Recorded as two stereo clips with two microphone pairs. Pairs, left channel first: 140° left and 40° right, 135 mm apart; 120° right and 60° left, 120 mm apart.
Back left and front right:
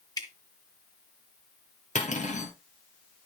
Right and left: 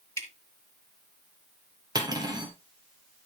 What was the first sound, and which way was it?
Dripping, 175° right.